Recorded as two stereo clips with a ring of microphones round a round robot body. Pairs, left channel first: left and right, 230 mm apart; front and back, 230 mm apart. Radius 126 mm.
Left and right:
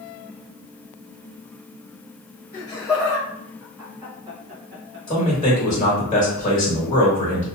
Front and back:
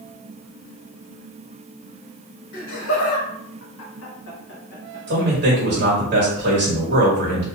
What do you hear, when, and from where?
2.5 s laughter: 20° left, 1.8 m; by 5.0 s 55° right, 1.1 m
5.1 s a man speaking: 150° left, 1.4 m